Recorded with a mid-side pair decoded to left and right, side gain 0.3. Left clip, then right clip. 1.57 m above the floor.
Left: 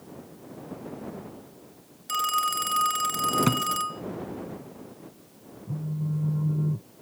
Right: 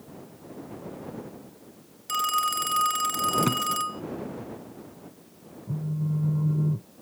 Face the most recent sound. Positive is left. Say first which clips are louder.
# right 2 dB
turn(degrees=-15)